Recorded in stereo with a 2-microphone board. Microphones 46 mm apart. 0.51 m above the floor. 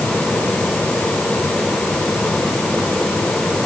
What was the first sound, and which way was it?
Only background noise.